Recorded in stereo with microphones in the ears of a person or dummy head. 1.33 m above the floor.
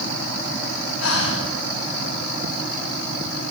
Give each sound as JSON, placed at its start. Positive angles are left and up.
{"t": 1.0, "sound": "breathing", "side_deg": 80, "distance_m": 2.0}